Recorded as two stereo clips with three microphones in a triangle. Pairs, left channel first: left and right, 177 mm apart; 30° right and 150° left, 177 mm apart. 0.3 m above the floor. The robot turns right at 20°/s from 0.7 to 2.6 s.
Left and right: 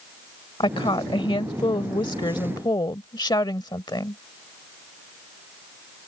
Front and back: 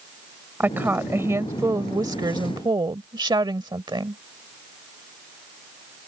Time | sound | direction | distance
0.6 | a woman speaking | 85° left | ?